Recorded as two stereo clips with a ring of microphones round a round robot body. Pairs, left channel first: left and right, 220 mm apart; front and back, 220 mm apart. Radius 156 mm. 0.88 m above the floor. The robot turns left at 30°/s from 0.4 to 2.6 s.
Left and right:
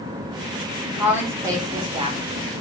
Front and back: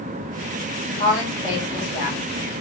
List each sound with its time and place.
1.0 s a woman speaking: 10° right, 0.9 m; by 2.4 s 55° right, 0.9 m